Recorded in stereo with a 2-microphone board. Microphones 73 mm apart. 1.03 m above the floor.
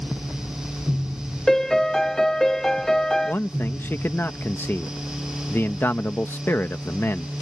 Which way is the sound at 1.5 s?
5° left (ahead or behind).